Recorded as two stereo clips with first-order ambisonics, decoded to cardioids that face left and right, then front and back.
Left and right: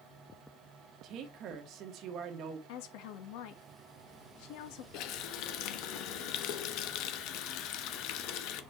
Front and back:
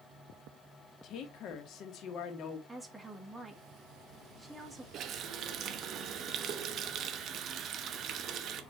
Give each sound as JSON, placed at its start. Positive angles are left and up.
{"t": 1.0, "sound": "a woman speaking", "azimuth_deg": -45, "distance_m": 1.5}
{"t": 2.7, "sound": "a woman speaking", "azimuth_deg": 90, "distance_m": 1.6}
{"t": 4.9, "sound": "a running tap", "azimuth_deg": 125, "distance_m": 0.9}